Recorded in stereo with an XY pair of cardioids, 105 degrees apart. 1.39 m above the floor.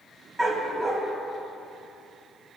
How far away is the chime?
I don't hear a chime.